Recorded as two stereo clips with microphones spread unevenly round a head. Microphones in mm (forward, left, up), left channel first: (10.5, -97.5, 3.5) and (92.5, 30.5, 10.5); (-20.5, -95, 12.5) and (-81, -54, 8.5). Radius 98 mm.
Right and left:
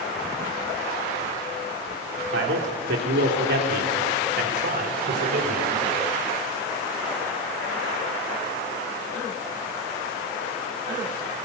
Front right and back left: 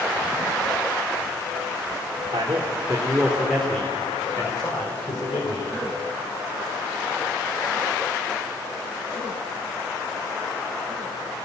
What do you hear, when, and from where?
2.3 s a man speaking: 85° left, 3.5 m; by 5.7 s 25° left, 5 m